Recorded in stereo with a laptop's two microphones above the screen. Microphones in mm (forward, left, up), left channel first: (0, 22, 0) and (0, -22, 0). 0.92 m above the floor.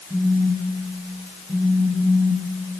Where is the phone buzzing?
55° right (ahead or behind), 4 m.